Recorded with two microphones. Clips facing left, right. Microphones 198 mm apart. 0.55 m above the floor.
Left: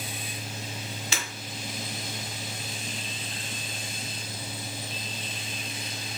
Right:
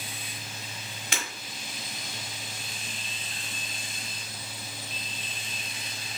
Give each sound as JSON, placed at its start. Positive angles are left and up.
{"t": 1.1, "sound": "breaking glass", "side_deg": -55, "distance_m": 1.3}